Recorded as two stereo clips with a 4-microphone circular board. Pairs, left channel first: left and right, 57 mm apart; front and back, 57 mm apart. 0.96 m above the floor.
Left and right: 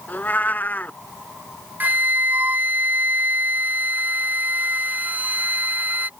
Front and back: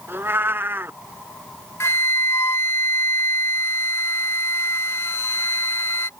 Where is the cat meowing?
140° left.